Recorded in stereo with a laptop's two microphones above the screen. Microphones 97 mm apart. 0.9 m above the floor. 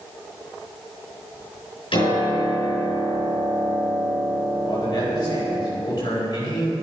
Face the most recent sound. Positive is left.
turn(degrees=45)  # may be behind; listen again after turning